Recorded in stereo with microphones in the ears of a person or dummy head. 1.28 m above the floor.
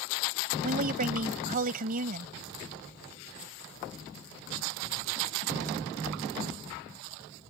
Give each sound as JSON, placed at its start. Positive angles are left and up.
{"t": 0.6, "sound": "a woman speaking", "side_deg": -40}